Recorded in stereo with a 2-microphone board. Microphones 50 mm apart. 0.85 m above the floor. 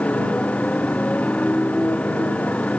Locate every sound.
0.0 s a motorcycle: 25° left (ahead or behind)